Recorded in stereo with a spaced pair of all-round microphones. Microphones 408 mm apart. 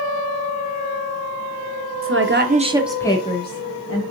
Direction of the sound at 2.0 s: 35° right (ahead or behind).